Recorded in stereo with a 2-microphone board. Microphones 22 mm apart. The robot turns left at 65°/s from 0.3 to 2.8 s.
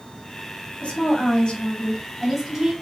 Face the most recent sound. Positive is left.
turn(degrees=-35)